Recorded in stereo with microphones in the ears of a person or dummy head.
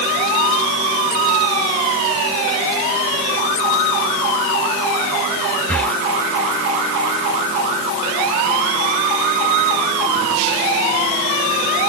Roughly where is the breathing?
Centre.